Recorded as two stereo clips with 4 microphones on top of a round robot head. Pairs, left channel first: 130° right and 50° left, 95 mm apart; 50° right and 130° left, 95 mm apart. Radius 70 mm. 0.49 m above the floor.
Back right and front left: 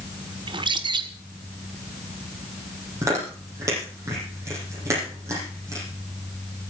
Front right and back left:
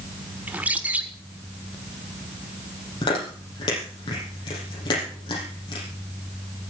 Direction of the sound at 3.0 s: 10° right.